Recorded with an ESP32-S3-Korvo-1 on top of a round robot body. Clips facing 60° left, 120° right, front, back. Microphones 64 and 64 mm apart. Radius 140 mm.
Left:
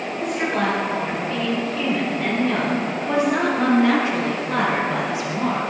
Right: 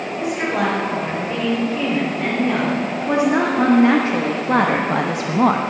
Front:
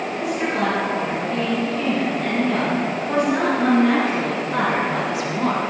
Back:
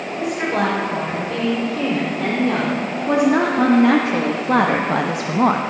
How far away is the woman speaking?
About 4.5 m.